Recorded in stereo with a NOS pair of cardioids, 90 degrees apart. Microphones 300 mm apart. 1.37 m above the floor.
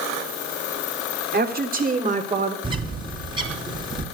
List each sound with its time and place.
1.3 s a woman speaking: 30° right, 3.5 m; by 2.5 s 20° right, 4 m
2.6 s a bird: 15° right, 4 m